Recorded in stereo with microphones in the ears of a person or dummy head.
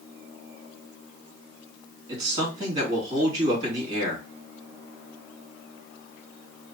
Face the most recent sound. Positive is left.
turn(degrees=-25)  # may be behind; listen again after turning